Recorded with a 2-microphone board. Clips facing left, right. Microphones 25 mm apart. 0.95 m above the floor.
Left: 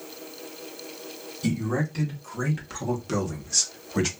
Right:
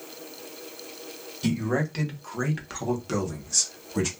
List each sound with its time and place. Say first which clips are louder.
1.4 s a man speaking: right 1 dB; 45° right (ahead or behind), 1.6 m; by 4.1 s 30° left (ahead or behind), 1.2 m